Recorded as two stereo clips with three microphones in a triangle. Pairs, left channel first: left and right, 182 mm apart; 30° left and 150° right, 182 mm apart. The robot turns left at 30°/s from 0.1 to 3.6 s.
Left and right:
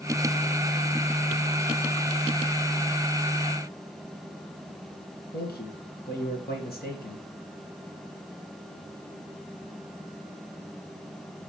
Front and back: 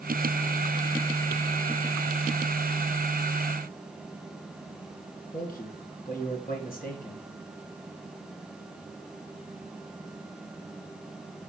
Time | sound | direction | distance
5.3 | a man speaking | 65° left | 4 m